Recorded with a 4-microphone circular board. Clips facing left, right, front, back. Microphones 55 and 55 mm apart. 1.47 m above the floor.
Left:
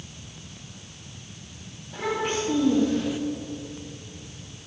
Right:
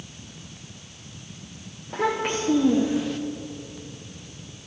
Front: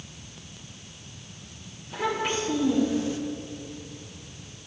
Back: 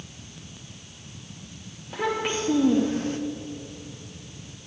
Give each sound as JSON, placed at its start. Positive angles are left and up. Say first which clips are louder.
{"t": 1.9, "sound": "a child speaking", "louder": "right 2 dB, back 1 dB", "azimuth_deg": -115, "distance_m": 1.6}